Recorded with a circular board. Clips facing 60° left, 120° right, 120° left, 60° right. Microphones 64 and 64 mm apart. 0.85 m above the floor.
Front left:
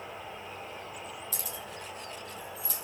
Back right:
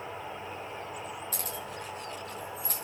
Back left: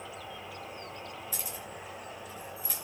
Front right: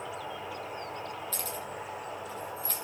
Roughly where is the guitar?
No guitar in this recording.